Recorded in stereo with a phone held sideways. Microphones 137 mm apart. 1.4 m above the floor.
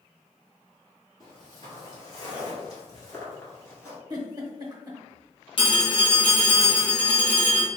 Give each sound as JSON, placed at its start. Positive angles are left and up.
{"t": 1.2, "sound": "footsteps", "side_deg": 35, "distance_m": 2.0}
{"t": 4.1, "sound": "a giggle", "side_deg": -30, "distance_m": 0.8}
{"t": 5.6, "sound": "a phone ringing", "side_deg": 40, "distance_m": 0.9}